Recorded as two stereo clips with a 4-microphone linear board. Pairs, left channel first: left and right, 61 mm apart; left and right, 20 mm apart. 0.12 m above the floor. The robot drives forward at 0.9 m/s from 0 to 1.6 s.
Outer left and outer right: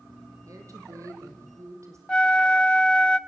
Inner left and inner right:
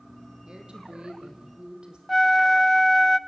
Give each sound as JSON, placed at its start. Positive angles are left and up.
{"t": 0.5, "sound": "a woman speaking", "side_deg": -60, "distance_m": 4.5}
{"t": 2.1, "sound": "a flute", "side_deg": 15, "distance_m": 0.6}